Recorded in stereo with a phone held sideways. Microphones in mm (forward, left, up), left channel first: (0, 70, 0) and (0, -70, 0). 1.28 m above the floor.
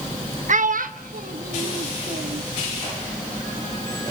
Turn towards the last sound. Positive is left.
turn(degrees=-85)